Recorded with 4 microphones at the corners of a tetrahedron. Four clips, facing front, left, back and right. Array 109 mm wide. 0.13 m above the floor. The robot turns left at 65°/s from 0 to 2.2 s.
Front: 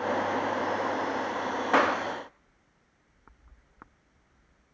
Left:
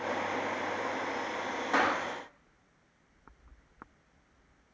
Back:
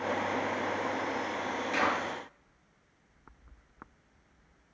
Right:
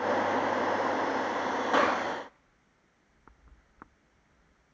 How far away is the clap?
About 7.5 m.